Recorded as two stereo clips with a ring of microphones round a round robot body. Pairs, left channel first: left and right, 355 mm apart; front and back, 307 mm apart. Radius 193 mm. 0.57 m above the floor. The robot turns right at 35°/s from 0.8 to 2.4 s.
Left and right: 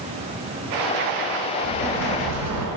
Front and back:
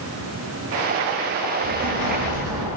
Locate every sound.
1.6 s an explosion: 160° right, 3.5 m; by 2.7 s 130° right, 3.5 m